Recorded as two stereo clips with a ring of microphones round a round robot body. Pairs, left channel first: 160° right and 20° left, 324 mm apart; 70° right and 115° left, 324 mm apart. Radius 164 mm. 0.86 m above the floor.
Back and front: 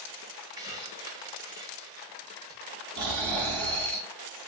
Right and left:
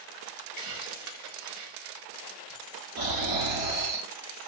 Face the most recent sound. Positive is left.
turn(degrees=65)